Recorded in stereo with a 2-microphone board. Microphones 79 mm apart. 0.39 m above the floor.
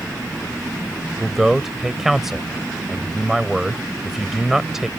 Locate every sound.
1.2 s a man speaking: 5° right (ahead or behind)